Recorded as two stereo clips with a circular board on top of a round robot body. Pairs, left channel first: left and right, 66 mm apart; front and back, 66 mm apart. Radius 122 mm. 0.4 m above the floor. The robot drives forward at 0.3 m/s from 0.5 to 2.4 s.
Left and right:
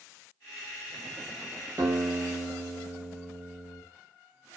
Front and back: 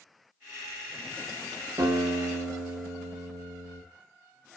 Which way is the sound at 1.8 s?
140° right.